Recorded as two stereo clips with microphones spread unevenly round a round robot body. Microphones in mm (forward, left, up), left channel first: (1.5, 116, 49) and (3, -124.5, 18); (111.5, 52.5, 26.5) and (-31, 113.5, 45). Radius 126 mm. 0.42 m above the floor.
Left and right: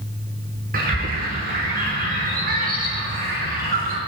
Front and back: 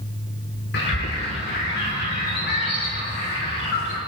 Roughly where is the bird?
Ahead right.